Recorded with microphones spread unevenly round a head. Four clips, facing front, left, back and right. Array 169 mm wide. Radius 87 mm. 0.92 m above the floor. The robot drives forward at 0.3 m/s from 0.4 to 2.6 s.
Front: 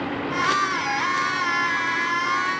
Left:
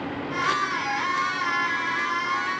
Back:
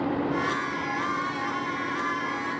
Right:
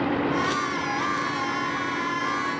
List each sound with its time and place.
Only background noise.